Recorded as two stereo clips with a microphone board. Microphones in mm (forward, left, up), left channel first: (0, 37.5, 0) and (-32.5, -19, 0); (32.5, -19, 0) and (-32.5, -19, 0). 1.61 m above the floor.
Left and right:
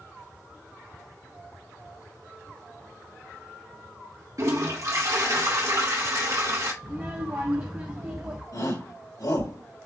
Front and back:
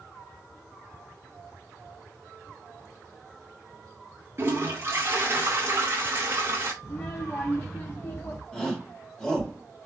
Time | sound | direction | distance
4.4 | a toilet flushing | 135° right | 1.8 m
6.8 | a child speaking | 60° right | 0.9 m
8.5 | a shout | 80° left | 2 m